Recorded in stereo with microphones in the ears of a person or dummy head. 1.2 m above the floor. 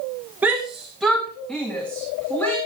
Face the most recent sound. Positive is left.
turn(degrees=15)  # may be behind; listen again after turning